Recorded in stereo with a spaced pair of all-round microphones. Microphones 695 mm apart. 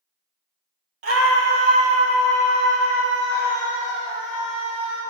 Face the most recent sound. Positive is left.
turn(degrees=0)  # may be behind; listen again after turning